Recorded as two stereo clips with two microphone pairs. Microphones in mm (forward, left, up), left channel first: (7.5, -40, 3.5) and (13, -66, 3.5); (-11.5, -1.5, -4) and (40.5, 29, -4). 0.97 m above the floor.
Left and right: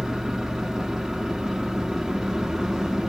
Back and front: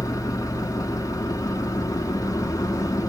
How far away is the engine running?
About 1.5 m.